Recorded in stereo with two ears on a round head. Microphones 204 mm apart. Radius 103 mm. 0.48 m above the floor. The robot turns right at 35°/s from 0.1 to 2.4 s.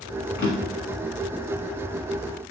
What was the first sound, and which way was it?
A drawer, 55° left (ahead or behind).